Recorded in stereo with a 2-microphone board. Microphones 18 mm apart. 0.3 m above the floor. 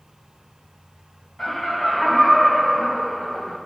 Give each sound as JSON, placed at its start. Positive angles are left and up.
{"t": 1.4, "sound": "laughter", "side_deg": 30, "distance_m": 2.0}